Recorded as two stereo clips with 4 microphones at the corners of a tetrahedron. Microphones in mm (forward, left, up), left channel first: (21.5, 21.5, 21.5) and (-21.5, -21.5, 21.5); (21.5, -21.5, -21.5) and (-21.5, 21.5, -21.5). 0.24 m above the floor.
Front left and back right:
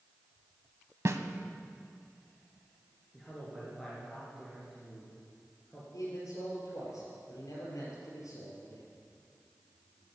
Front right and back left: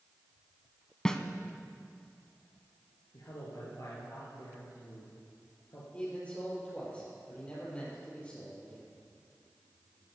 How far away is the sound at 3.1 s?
About 3 m.